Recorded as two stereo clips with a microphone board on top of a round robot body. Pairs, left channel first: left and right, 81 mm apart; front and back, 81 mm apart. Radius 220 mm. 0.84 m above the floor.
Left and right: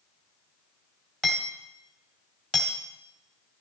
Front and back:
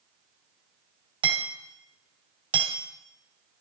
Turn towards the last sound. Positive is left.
turn(degrees=175)